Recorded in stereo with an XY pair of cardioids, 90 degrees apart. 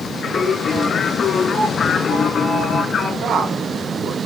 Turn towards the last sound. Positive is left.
turn(degrees=-60)